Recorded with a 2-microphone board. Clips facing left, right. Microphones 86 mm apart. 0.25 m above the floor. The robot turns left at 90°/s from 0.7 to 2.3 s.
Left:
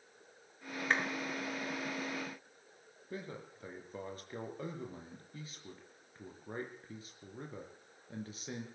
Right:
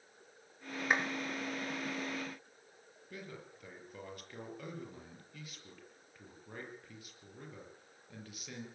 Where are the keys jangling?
No keys jangling in this recording.